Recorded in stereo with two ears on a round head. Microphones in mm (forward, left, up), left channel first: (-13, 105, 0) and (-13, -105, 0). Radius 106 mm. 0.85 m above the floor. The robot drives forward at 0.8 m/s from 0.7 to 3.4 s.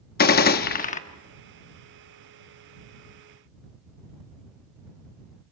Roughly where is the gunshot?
Left.